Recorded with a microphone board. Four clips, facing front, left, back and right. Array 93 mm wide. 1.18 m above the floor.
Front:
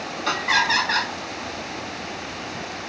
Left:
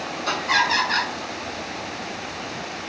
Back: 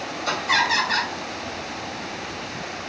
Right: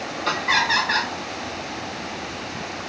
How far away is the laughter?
About 2.5 m.